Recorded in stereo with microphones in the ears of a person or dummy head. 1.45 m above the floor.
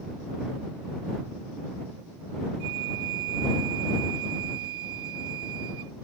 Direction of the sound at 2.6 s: 55° right (ahead or behind).